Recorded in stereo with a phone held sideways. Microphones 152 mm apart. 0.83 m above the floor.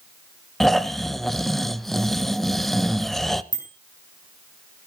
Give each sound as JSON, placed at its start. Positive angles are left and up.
{"t": 0.6, "sound": "snoring", "side_deg": 0, "distance_m": 0.7}
{"t": 3.5, "sound": "a bicycle bell", "side_deg": 25, "distance_m": 4.0}